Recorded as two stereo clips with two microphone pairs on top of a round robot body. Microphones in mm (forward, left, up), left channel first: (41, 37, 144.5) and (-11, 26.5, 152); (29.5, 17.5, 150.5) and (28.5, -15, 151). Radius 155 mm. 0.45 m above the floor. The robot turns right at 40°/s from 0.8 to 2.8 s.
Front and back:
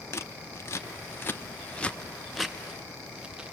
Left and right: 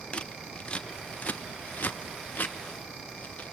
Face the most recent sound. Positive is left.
turn(degrees=115)